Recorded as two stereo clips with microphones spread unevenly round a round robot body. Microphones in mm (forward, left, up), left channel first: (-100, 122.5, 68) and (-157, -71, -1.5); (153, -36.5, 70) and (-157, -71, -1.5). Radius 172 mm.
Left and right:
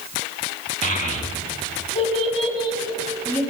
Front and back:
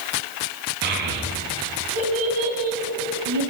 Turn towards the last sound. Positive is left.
turn(degrees=155)